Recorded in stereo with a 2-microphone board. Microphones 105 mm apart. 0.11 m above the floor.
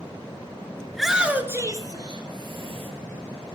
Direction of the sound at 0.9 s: 5° left (ahead or behind).